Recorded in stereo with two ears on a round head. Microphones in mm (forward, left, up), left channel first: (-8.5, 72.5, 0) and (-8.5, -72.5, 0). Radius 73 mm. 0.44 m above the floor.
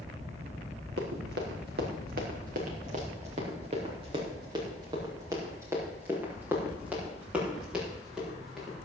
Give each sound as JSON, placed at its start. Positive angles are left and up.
{"t": 1.0, "sound": "running footsteps", "side_deg": -75, "distance_m": 4.0}